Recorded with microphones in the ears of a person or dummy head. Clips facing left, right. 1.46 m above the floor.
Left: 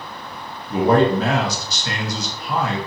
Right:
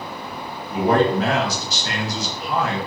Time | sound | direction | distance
0.7 | a man speaking | 75° left (ahead or behind) | 1.0 m